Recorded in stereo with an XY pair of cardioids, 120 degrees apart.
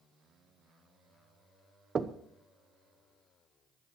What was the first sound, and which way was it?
Knocking, 30° right.